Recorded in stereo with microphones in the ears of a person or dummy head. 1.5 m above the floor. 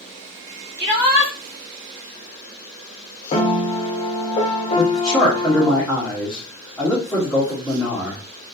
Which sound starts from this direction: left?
A piano, at 3.3 s.